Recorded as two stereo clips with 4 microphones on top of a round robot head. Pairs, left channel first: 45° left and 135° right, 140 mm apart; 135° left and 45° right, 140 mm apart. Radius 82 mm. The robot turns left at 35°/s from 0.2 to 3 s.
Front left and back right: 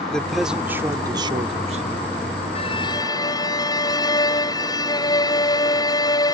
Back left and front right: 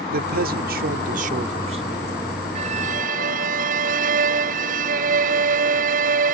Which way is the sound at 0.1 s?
40° right.